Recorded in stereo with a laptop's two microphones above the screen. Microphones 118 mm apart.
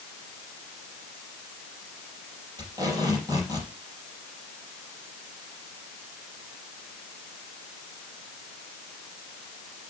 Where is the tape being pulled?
30° right (ahead or behind), 4.5 m.